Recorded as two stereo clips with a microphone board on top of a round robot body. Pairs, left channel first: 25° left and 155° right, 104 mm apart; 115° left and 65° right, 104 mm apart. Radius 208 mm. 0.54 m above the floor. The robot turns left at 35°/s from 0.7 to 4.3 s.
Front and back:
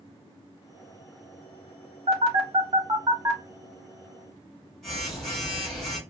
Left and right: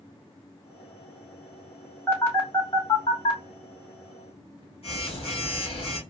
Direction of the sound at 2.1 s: 170° right.